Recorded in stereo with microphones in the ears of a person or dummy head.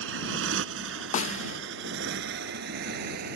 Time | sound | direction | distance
0.0 | a motorcycle | 80° right | ?
1.1 | a snare drum | 45° left (ahead or behind) | ?